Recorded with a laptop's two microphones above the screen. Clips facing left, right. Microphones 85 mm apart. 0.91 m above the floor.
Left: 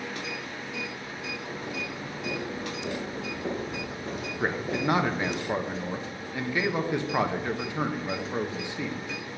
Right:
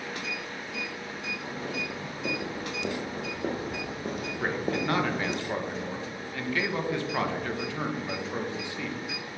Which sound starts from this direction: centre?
A man speaking, at 4.4 s.